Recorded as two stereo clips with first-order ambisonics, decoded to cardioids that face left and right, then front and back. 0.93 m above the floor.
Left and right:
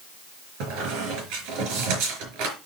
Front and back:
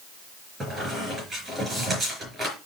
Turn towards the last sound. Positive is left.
turn(degrees=-105)